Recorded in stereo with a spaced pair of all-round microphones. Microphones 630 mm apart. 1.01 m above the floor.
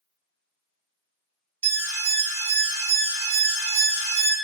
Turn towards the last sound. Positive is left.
turn(degrees=-30)  # may be behind; listen again after turning